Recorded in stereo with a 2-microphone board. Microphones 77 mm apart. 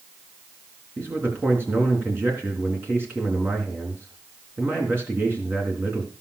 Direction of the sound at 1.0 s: 30° right (ahead or behind).